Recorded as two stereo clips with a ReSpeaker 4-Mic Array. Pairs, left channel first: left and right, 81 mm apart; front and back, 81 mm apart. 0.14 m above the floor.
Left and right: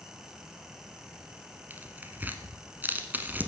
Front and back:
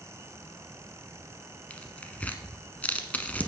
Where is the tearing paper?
50° right, 1.0 m.